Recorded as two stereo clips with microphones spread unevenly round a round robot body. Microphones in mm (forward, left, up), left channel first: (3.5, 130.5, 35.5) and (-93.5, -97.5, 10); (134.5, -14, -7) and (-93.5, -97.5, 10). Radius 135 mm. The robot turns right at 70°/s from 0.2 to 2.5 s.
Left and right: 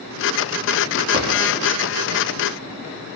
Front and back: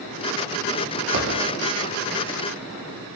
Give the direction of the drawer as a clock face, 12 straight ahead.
5 o'clock.